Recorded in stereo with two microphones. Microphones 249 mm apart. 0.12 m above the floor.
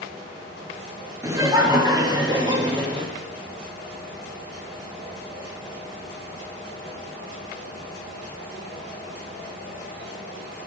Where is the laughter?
15° right (ahead or behind), 2 m; by 3.1 s 20° right (ahead or behind), 3.5 m.